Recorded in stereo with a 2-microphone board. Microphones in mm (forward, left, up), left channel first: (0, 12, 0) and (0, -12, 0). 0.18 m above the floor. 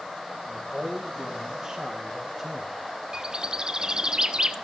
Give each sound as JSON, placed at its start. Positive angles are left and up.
{"t": 0.5, "sound": "a man speaking", "side_deg": -40, "distance_m": 6.0}
{"t": 3.1, "sound": "a bird", "side_deg": -30, "distance_m": 0.9}